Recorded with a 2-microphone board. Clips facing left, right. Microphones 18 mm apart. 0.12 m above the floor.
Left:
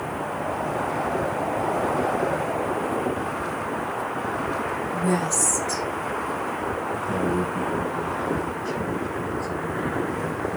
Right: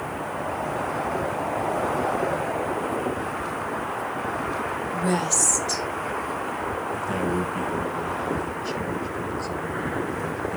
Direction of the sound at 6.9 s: 30° right (ahead or behind).